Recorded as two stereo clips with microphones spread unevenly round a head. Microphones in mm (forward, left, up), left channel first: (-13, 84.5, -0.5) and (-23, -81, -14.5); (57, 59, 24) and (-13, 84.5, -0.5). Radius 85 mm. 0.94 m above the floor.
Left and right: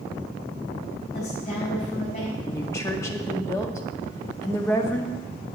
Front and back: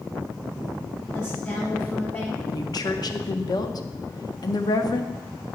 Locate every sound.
1.1 s a woman speaking: 35° left, 6 m
2.5 s a woman speaking: 10° left, 1.6 m